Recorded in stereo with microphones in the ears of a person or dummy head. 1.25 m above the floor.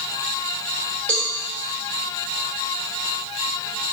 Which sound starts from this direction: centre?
A cowbell, at 1.1 s.